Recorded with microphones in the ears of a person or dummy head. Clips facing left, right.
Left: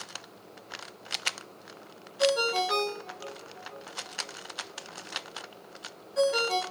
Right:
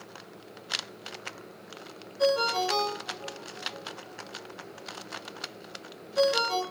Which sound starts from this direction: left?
A ringtone, at 2.2 s.